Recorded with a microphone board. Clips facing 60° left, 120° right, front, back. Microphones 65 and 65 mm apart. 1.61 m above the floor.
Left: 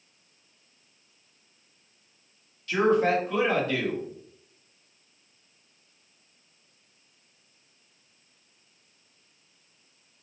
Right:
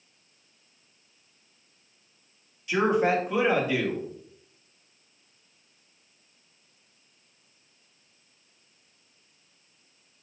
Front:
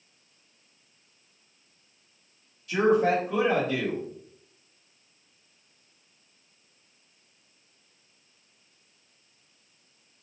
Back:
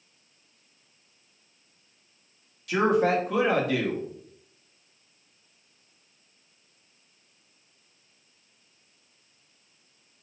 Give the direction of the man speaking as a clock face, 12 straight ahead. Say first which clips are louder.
Left 1 dB, even; 7 o'clock.